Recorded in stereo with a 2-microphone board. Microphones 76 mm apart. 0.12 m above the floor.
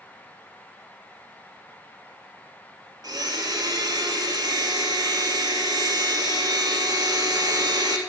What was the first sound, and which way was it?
A blender, 60° right (ahead or behind).